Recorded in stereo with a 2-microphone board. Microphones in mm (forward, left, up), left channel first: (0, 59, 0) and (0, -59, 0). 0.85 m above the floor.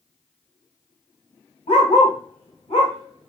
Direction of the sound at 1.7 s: 75° left (ahead or behind).